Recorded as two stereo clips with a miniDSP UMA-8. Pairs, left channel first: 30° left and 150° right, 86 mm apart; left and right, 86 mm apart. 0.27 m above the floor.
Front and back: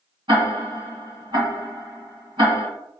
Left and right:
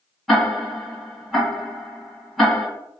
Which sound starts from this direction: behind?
Ticking, at 0.3 s.